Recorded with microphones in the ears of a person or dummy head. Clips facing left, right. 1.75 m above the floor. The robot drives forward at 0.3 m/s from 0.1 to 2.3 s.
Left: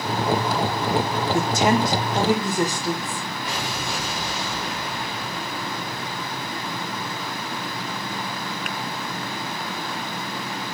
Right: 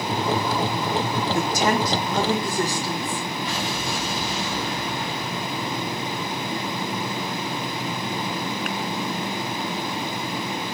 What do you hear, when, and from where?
1.3 s a woman speaking: 20° left (ahead or behind), 1.4 m; by 3.2 s 15° left (ahead or behind), 1.7 m
3.5 s an explosion: 65° left (ahead or behind), 4.5 m